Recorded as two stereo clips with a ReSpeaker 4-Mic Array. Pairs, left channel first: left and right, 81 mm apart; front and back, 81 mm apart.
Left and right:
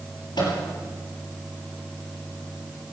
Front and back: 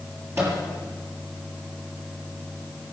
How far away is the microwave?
About 6.5 m.